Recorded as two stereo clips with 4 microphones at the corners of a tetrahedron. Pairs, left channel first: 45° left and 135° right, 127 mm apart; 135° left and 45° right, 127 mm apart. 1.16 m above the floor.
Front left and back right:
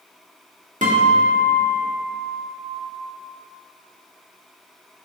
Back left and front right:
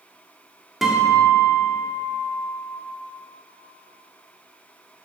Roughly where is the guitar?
Behind right.